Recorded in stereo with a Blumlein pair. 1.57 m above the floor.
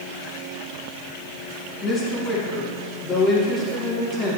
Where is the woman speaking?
25° left, 1.6 m.